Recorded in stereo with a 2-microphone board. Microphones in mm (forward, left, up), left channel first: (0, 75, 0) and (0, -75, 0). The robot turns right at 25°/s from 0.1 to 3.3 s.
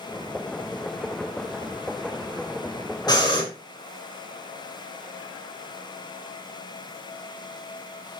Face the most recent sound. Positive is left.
turn(degrees=30)  # may be behind; listen again after turning